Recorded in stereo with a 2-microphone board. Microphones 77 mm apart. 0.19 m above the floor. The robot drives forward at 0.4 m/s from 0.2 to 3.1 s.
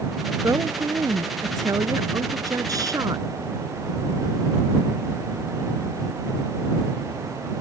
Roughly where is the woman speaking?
Right.